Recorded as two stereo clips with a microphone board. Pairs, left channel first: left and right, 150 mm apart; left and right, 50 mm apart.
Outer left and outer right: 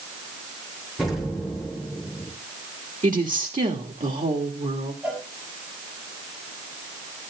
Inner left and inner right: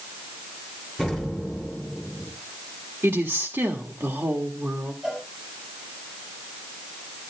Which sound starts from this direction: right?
A woman speaking, at 3.0 s.